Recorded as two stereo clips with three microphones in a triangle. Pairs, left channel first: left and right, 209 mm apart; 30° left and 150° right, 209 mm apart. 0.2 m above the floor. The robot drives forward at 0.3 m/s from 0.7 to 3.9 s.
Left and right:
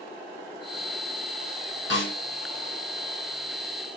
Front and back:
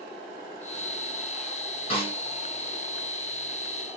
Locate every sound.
1.9 s a snare drum: 90° left, 2.5 m